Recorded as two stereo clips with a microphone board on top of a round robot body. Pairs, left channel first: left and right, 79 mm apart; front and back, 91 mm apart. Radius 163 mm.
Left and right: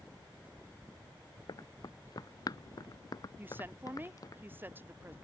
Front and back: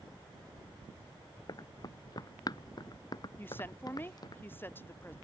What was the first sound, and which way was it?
Running footsteps, 50° left.